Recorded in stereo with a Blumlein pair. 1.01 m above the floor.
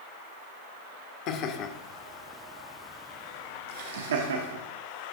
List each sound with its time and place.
1.3 s laughter: 40° left, 1.2 m; by 4.6 s 75° right, 1.1 m